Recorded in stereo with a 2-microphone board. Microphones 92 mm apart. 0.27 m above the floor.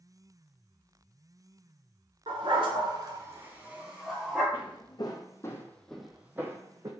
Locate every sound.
2.3 s a dog barking: 85° right, 0.9 m; by 4.4 s centre (ahead or behind), 1.6 m
4.5 s footsteps: 60° left (ahead or behind), 1.0 m; by 6.9 s 40° right (ahead or behind), 0.8 m